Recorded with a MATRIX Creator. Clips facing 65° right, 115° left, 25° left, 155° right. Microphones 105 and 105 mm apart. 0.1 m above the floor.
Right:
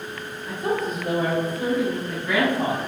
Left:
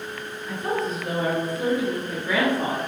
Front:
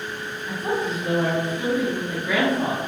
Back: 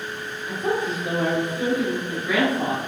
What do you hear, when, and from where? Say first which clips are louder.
0.5 s a woman speaking: right 1 dB, back 1 dB; 115° right, 1.6 m; by 2.8 s 140° left, 2.0 m